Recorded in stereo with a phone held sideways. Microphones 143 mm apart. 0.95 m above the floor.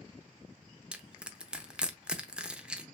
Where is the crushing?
5° right (ahead or behind), 0.7 m.